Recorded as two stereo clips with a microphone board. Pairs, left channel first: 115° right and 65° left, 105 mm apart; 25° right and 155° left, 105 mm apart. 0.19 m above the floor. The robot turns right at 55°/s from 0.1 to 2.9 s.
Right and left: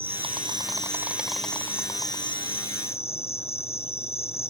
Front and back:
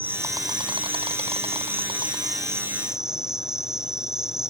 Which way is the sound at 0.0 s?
90° left.